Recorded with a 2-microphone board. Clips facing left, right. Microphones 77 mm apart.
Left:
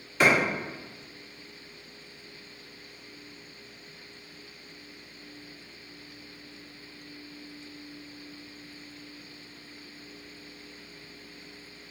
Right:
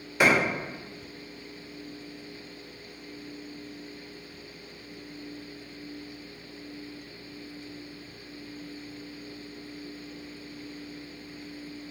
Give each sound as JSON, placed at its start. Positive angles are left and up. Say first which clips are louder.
{"t": 0.2, "sound": "a clap", "louder": "even", "side_deg": -10, "distance_m": 1.9}